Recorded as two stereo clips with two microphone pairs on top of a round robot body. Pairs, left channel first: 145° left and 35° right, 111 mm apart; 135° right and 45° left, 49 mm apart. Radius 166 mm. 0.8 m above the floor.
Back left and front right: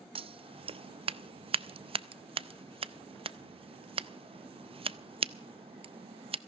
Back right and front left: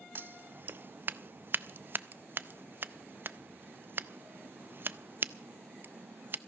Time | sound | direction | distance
0.1 | scissors | 5° right | 0.5 m